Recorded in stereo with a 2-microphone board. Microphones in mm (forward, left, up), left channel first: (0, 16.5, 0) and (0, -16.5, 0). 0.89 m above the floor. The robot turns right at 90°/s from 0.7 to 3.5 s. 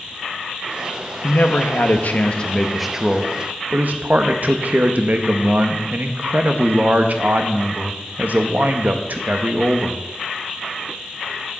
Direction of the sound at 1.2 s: 40° left.